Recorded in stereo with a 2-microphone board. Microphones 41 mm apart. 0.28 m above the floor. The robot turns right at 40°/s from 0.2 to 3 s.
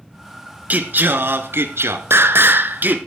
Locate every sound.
0.7 s singing: 135° right, 1.0 m; by 3.0 s 45° right, 1.0 m